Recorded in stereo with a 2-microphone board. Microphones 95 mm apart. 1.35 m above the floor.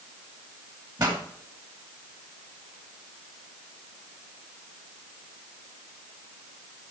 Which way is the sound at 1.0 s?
45° right (ahead or behind).